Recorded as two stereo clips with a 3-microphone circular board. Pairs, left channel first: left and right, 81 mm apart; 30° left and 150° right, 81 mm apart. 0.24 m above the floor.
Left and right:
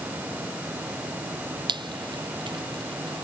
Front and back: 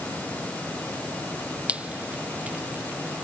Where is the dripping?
75° right.